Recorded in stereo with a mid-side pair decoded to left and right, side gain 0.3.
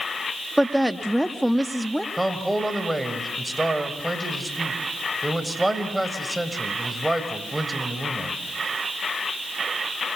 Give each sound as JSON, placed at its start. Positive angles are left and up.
{"t": 0.6, "sound": "a woman speaking", "azimuth_deg": -5, "distance_m": 2.0}
{"t": 2.2, "sound": "a man speaking", "azimuth_deg": -10, "distance_m": 5.0}